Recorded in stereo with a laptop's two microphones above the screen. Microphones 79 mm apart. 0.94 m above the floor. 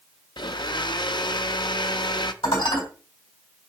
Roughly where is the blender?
Left.